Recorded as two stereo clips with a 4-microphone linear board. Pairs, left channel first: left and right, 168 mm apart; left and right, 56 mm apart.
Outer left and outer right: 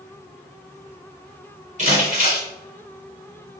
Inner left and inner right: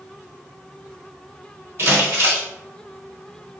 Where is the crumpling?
45° right (ahead or behind), 1.3 m.